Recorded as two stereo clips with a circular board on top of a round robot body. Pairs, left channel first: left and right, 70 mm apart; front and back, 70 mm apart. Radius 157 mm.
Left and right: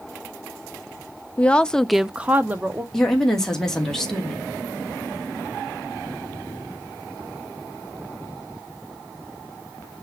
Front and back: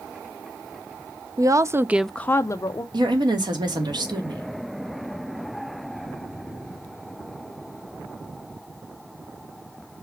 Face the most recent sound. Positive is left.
turn(degrees=175)